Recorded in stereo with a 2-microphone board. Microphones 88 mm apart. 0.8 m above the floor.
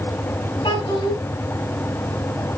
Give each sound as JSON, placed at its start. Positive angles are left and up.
{"t": 0.6, "sound": "a child speaking", "side_deg": 65, "distance_m": 5.5}